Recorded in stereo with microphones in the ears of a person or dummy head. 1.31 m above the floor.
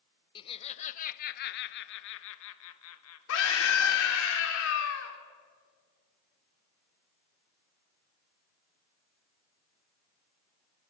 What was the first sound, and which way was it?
Laughter, 25° left (ahead or behind).